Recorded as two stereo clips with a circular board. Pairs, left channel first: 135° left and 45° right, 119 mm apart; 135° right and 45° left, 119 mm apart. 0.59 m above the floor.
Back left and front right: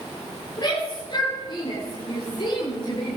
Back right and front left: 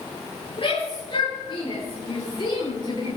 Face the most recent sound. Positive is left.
turn(degrees=175)